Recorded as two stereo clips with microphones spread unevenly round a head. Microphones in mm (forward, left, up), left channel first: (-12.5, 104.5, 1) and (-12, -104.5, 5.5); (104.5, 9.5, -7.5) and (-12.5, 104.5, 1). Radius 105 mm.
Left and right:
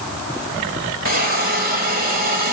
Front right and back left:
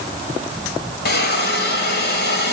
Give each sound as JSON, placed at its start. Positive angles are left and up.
{"t": 1.1, "sound": "a hiss", "azimuth_deg": -40, "distance_m": 2.5}